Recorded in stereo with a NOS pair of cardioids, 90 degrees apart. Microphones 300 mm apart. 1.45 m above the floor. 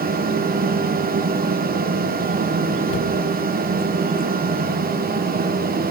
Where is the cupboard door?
50° left, 1.4 m.